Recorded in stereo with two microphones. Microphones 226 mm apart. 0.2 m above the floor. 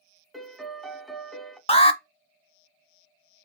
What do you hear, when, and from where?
0.3 s a piano: centre (ahead or behind), 0.7 m
1.7 s an alarm: 25° left (ahead or behind), 0.9 m